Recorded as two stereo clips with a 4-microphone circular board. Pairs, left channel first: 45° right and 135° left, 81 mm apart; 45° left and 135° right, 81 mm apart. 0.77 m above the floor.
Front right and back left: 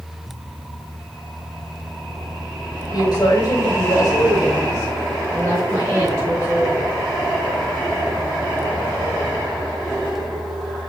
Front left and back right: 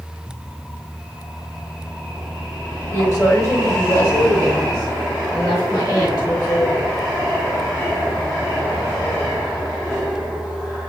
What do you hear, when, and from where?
2.9 s a woman speaking: 5° right, 2 m; by 6.9 s 15° left, 5 m